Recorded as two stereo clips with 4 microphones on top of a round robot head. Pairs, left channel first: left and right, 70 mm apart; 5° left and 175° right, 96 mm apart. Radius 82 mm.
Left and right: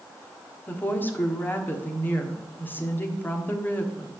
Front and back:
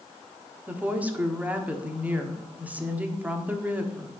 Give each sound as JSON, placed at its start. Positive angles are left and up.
{"t": 0.7, "sound": "a woman speaking", "azimuth_deg": 125, "distance_m": 1.4}